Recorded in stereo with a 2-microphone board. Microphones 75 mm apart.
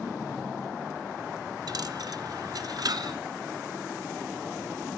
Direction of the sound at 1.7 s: 60° right (ahead or behind).